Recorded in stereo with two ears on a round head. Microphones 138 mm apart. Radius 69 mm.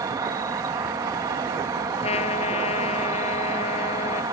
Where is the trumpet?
40° left (ahead or behind).